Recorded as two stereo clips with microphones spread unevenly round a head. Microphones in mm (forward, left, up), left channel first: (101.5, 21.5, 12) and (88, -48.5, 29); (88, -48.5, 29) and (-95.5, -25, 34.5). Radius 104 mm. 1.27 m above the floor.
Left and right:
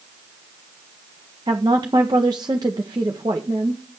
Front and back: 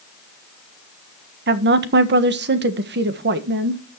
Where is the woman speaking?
160° right, 1.3 m.